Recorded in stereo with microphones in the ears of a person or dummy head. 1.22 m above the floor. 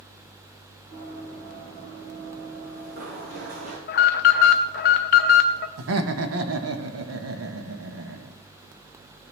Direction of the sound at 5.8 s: 85° right.